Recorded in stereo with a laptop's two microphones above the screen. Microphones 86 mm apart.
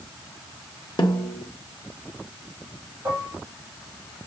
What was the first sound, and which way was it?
A snare drum, 60° left (ahead or behind).